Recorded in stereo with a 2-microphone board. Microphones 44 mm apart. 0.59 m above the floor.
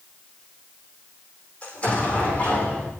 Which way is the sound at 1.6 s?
30° left (ahead or behind).